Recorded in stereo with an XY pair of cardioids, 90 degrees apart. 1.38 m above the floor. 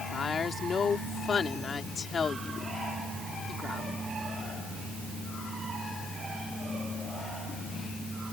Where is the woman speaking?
45° left.